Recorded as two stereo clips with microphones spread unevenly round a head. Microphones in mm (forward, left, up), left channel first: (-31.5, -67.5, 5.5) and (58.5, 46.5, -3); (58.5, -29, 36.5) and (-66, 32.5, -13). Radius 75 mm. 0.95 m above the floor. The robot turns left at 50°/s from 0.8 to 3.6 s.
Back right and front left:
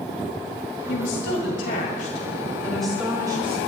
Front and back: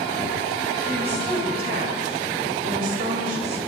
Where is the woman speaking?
120° right, 6 m; by 3.6 s 105° left, 6 m.